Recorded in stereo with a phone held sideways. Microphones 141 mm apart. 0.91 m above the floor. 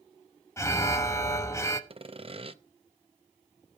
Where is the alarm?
20° left (ahead or behind), 0.9 m.